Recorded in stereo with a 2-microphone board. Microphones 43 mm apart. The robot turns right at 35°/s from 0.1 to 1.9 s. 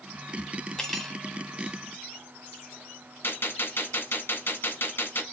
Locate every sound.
0.8 s cutlery clinking: 15° left (ahead or behind), 0.8 m; by 1.2 s 5° left (ahead or behind), 0.8 m
3.2 s a gunshot: 55° left (ahead or behind), 0.9 m